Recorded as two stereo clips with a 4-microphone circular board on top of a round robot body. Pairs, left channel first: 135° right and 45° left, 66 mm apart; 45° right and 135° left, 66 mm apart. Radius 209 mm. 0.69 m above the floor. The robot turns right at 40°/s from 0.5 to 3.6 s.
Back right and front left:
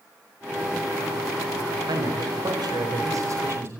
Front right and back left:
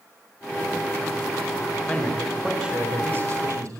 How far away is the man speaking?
About 5 m.